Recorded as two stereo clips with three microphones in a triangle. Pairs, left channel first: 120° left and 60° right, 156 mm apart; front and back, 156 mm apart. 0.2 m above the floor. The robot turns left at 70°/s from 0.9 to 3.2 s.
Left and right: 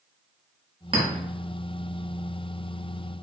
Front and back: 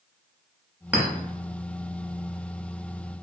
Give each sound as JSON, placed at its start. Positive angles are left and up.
{"t": 0.9, "sound": "a clink", "azimuth_deg": -105, "distance_m": 1.0}